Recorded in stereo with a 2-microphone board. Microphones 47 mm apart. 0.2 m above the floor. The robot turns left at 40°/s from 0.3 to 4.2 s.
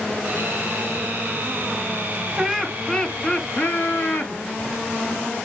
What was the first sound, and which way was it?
Laughter, straight behind.